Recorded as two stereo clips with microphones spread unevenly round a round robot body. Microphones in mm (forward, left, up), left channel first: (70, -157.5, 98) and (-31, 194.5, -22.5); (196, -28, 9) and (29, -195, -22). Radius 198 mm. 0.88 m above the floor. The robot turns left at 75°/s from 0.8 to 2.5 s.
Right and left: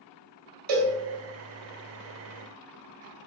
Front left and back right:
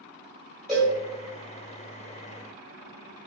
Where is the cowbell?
135° left, 2.5 m; by 0.9 s 125° left, 2.5 m.